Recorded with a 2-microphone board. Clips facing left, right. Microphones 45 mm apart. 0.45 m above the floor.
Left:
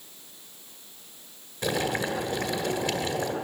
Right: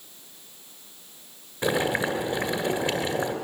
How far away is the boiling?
About 2 m.